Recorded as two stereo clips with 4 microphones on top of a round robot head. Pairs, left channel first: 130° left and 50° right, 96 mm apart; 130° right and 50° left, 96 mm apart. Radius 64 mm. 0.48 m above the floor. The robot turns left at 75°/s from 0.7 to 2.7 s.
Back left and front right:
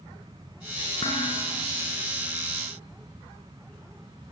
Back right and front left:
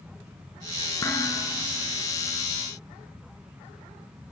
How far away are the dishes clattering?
About 4.5 m.